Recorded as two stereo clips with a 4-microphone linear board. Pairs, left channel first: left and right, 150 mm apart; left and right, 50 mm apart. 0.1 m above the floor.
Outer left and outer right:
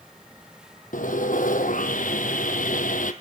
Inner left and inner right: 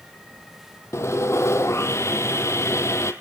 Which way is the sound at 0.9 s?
65° left (ahead or behind).